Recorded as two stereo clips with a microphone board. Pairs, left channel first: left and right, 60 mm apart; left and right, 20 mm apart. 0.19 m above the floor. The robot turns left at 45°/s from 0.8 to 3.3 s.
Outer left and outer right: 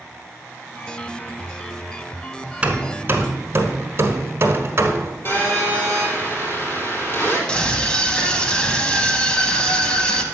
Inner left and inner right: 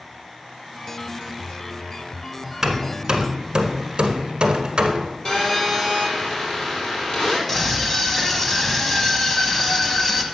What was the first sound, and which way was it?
Hammering, 20° right (ahead or behind).